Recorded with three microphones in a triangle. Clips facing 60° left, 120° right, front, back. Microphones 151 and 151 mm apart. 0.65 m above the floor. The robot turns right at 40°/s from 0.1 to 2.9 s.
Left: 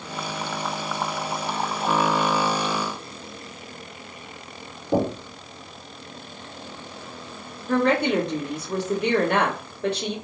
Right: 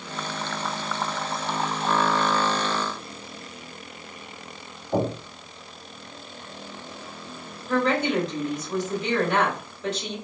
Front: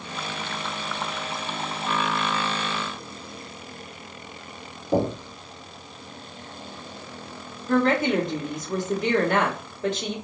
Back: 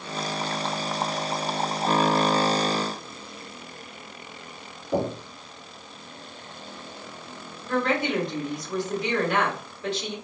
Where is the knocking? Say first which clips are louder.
Left 2 dB, front 3 dB; 65° left, 1.8 m.